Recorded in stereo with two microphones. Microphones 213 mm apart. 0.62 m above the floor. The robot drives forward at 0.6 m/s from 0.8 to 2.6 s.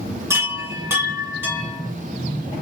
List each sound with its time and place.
0.3 s a chime: 10° right (ahead or behind), 1.2 m